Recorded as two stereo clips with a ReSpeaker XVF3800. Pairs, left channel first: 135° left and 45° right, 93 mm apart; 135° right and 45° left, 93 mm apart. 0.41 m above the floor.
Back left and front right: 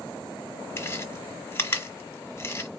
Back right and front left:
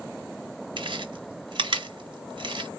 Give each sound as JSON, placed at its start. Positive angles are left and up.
{"t": 0.8, "sound": "chewing", "azimuth_deg": 70, "distance_m": 1.2}